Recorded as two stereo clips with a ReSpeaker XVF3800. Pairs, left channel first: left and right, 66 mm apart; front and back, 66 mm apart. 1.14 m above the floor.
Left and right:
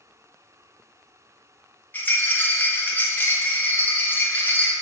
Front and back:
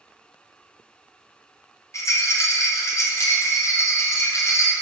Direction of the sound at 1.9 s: 30° left.